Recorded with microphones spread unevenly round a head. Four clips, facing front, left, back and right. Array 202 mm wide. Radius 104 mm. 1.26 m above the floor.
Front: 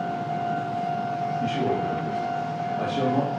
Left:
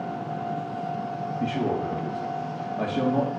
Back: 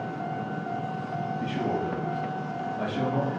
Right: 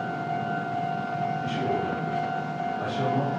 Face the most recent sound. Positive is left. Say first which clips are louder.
# left 1 dB, front 3 dB
turn(degrees=90)